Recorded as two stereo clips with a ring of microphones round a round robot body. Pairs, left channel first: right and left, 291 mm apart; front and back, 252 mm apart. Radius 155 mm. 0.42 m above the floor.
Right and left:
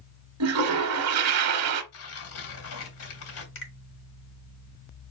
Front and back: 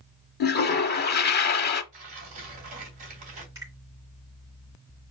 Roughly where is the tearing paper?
Behind right.